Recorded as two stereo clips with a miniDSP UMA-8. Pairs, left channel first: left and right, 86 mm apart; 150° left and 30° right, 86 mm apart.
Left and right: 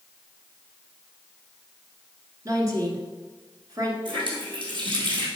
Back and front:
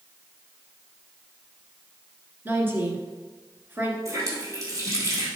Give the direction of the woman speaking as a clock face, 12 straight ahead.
3 o'clock.